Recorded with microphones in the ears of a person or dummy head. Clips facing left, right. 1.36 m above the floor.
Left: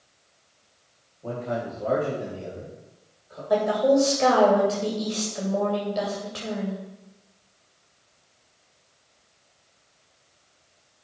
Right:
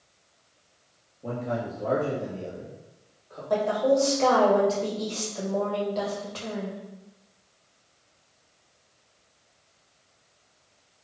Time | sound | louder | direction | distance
1.2 | a man speaking | left 1 dB | 20° right (ahead or behind) | 1.7 m
3.5 | a woman speaking | left 3 dB | 15° left (ahead or behind) | 2 m